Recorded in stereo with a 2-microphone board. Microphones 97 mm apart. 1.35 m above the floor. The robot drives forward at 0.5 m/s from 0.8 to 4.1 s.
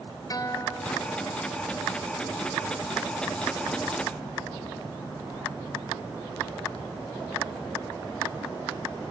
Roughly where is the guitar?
Left.